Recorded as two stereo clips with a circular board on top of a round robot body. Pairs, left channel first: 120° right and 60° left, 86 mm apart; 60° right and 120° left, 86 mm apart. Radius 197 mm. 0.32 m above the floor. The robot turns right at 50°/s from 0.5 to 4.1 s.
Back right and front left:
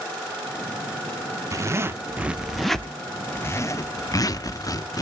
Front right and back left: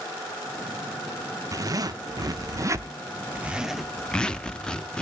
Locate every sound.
1.5 s a zipper: 95° left, 0.9 m; by 5.0 s 135° right, 0.9 m